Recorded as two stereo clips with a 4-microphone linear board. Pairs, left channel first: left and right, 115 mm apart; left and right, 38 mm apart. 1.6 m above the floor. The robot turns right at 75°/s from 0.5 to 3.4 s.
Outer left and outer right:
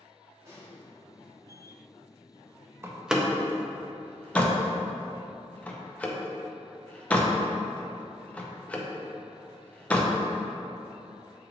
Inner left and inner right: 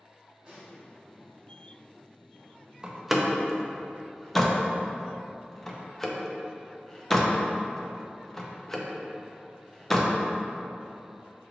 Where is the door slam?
20° right (ahead or behind), 0.5 m; by 10.1 s 10° left (ahead or behind), 0.5 m.